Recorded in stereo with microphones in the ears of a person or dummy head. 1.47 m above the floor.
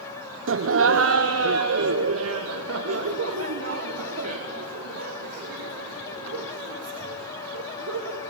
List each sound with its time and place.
0.5 s laughter: 60° right (ahead or behind), 0.7 m; by 8.2 s 85° right, 7.5 m